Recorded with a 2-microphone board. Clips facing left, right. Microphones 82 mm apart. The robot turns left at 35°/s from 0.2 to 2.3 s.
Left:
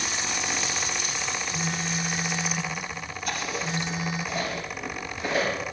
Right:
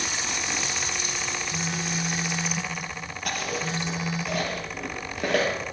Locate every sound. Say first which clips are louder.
1.5 s a phone buzzing: even; 70° right (ahead or behind), 3.5 m; by 4.2 s 40° right (ahead or behind), 3.5 m
3.2 s chewing: right 1 dB; 75° right (ahead or behind), 6 m